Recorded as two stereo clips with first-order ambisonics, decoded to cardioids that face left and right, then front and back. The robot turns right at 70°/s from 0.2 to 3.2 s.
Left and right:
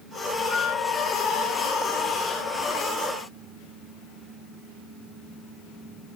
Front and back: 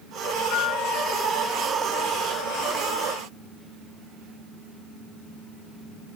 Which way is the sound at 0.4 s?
10° left.